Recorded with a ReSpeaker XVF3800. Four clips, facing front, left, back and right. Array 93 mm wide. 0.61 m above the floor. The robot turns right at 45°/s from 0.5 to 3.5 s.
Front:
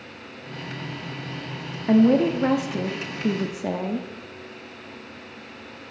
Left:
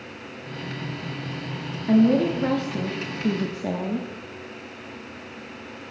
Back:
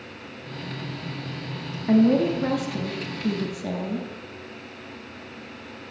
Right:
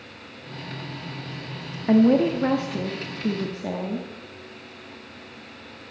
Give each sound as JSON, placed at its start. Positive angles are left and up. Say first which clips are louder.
{"t": 1.9, "sound": "a woman speaking", "louder": "right 1 dB, front 1 dB", "azimuth_deg": -55, "distance_m": 0.9}